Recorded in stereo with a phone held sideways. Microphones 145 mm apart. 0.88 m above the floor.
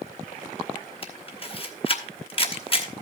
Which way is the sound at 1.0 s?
35° left (ahead or behind).